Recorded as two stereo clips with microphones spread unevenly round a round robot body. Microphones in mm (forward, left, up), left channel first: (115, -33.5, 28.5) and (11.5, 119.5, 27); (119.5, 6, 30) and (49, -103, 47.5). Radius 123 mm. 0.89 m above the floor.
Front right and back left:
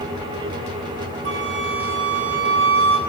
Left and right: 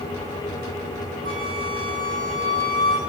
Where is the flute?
125° left, 4 m.